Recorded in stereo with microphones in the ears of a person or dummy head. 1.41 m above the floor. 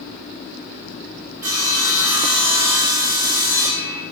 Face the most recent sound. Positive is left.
turn(degrees=-20)  # may be behind; listen again after turning